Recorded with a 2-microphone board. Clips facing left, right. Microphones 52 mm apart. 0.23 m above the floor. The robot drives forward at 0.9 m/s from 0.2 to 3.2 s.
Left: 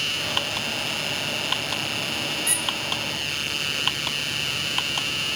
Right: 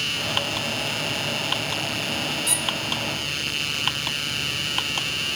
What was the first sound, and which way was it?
A squeak, 35° left (ahead or behind).